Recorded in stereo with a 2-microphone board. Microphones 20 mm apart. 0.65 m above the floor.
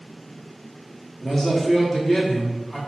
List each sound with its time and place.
1.2 s a man speaking: 15° left (ahead or behind), 0.8 m